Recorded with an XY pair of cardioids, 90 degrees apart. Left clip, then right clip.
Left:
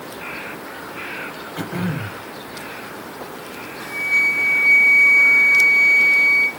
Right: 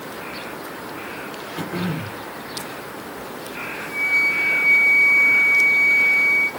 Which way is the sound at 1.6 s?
30° left.